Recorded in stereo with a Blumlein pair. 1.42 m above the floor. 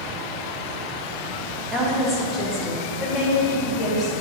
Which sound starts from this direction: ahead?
A woman speaking, at 1.7 s.